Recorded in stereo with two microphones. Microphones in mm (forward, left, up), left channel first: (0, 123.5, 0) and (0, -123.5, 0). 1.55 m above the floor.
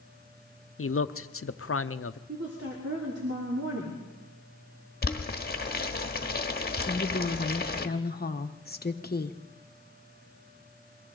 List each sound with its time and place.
0.8 s a man speaking: 60° left (ahead or behind), 0.7 m
2.3 s a woman speaking: 65° right (ahead or behind), 3.5 m
5.0 s boiling: 40° left (ahead or behind), 1.2 m
6.9 s a woman speaking: 40° left (ahead or behind), 1.1 m